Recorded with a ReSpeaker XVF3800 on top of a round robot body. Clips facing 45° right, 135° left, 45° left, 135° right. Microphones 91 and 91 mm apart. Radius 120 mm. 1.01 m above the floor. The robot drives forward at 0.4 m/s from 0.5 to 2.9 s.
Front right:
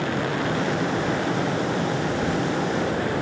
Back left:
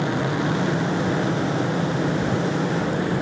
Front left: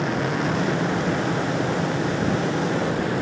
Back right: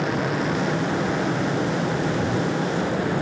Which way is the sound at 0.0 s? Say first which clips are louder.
Back left 2 dB, even; 140° left.